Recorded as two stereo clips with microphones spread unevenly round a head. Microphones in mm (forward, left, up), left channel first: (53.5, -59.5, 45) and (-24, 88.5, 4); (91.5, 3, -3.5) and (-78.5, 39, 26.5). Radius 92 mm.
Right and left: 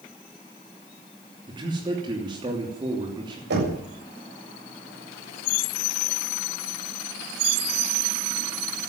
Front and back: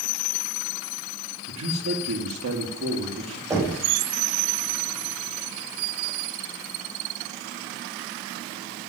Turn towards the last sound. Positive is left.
turn(degrees=95)